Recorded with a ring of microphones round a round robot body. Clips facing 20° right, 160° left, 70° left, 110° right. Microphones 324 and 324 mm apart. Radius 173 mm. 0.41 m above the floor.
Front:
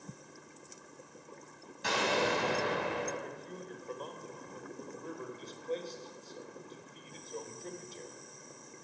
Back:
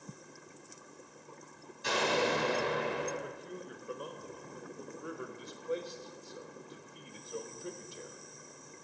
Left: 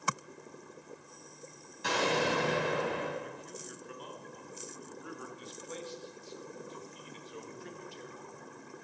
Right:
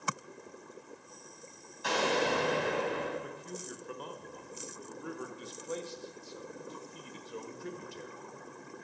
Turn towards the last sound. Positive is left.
turn(degrees=-130)